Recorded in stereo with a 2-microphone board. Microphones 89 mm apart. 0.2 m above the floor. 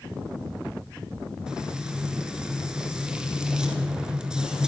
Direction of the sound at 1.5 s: 10° right (ahead or behind).